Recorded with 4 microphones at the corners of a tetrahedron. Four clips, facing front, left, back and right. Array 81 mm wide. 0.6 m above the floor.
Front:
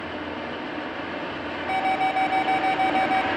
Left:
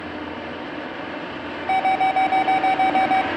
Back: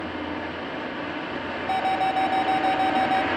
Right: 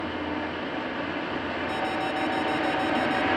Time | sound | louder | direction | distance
1.7 | an alarm | left 13 dB, even | 90° left | 1.6 m